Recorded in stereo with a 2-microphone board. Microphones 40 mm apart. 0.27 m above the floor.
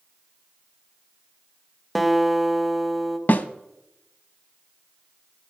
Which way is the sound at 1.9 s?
Centre (ahead or behind).